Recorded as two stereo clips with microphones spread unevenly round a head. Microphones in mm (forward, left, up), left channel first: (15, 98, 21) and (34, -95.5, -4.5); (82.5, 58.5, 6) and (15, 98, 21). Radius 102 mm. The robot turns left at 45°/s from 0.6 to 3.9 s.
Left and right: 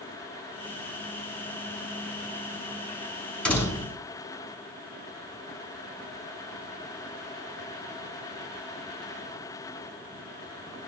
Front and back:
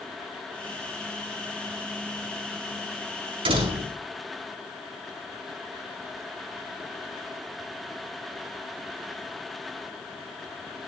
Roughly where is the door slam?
Behind.